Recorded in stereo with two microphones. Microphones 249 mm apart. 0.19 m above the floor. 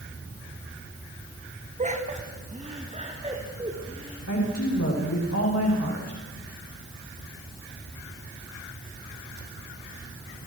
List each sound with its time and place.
1.8 s laughter: 30° right (ahead or behind), 1.2 m; by 4.2 s 20° right (ahead or behind), 3.5 m
4.3 s a woman speaking: 85° left, 9.5 m